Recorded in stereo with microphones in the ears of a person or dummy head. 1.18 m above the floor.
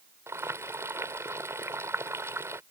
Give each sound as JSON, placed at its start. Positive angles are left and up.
{"t": 0.3, "sound": "boiling", "side_deg": -10}